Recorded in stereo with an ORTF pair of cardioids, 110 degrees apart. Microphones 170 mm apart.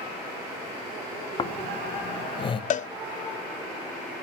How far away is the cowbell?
About 0.7 m.